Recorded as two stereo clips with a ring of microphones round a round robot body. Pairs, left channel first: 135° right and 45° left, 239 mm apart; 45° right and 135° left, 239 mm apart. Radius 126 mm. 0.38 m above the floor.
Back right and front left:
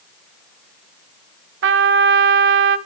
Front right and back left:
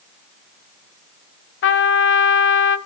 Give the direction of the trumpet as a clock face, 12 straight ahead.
12 o'clock.